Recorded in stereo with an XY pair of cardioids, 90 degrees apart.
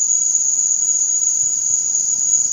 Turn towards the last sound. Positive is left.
turn(degrees=15)